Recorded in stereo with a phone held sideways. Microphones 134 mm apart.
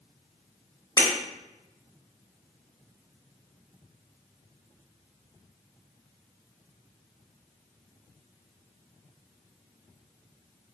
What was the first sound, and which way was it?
Breaking glass, 30° left (ahead or behind).